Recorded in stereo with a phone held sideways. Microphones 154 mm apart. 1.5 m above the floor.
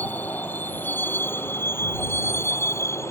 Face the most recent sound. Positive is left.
turn(degrees=15)  # may be behind; listen again after turning